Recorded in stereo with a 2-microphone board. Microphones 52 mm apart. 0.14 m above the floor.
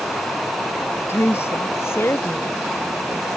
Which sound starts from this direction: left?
A woman speaking, at 1.1 s.